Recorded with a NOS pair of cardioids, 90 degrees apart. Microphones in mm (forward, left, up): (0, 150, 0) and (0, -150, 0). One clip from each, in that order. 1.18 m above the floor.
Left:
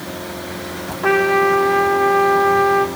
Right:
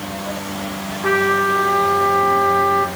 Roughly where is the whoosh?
I don't hear a whoosh.